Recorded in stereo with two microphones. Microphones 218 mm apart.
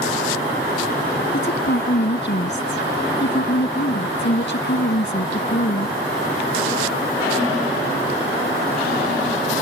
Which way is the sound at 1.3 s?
60° left (ahead or behind).